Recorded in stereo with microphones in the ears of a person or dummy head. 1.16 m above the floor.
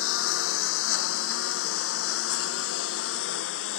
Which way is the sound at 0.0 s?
85° left.